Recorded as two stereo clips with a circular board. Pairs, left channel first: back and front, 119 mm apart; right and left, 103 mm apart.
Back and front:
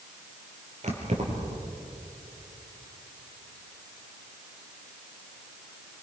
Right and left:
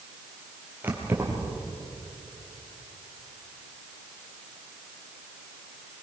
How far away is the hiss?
I don't hear a hiss.